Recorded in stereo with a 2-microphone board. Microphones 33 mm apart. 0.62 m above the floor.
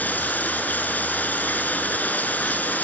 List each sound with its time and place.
0.0 s running water: 60° left (ahead or behind), 5 m